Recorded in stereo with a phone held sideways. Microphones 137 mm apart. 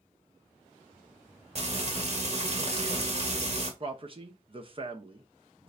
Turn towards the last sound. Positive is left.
turn(degrees=-40)  # may be behind; listen again after turning